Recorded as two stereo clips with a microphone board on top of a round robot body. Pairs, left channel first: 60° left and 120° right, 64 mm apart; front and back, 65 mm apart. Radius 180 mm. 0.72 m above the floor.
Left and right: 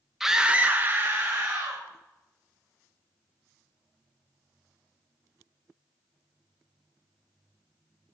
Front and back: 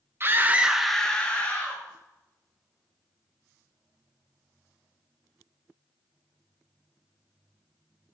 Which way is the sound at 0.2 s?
160° left.